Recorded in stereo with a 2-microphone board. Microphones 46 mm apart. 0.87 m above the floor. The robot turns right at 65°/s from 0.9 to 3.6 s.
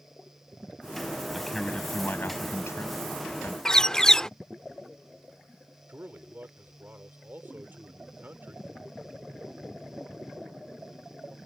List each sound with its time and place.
1.3 s a man speaking: 10° right; by 3.5 s 135° left
3.6 s a bird: 15° left (ahead or behind)
5.9 s a man speaking: 45° right (ahead or behind)